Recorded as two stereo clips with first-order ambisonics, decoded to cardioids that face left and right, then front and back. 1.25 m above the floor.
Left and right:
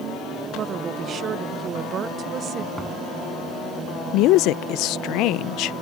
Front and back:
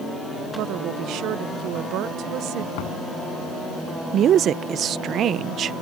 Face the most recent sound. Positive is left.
turn(degrees=125)